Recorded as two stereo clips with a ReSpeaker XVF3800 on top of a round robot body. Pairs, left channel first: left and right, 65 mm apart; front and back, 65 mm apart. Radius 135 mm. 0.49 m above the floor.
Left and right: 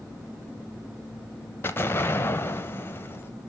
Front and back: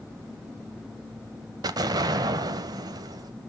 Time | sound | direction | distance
1.6 | an explosion | 150° left | 0.6 m